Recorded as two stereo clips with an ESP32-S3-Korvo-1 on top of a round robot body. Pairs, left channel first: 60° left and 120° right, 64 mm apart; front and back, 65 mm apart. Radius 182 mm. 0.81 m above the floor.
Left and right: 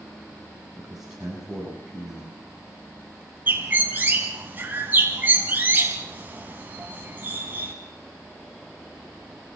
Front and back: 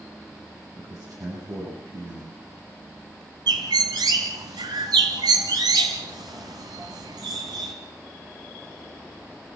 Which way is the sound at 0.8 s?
155° left.